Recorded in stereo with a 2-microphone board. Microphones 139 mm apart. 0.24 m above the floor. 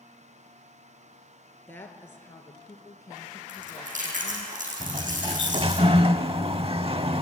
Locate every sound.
1.7 s a woman speaking: 15° left (ahead or behind), 3.5 m; by 4.5 s 40° left (ahead or behind), 2.0 m
3.5 s chewing: 70° right (ahead or behind), 5 m
4.8 s a sliding door: 45° right (ahead or behind), 0.6 m